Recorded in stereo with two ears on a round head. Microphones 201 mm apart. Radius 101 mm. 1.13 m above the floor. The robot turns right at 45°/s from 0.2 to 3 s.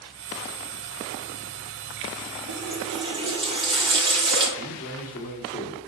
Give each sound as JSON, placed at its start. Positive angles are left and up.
{"t": 2.5, "sound": "a running tap", "side_deg": -45, "distance_m": 2.5}
{"t": 4.6, "sound": "a man speaking", "side_deg": 35, "distance_m": 3.0}